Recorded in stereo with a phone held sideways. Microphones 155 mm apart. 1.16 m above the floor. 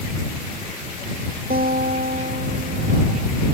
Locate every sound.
1.5 s a guitar: 75° right (ahead or behind)